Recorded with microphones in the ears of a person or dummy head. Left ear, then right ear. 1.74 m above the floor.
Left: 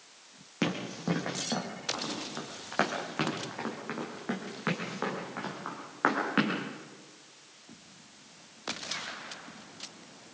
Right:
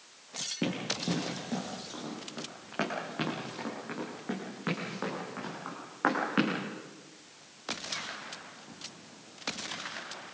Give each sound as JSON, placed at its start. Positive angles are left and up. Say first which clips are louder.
{"t": 0.6, "sound": "running footsteps", "louder": "left 3 dB", "side_deg": 50, "distance_m": 3.5}